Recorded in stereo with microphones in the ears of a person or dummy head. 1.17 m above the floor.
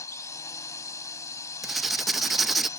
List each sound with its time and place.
0.0 s a drone: 15° left (ahead or behind)
1.6 s writing: 5° right (ahead or behind)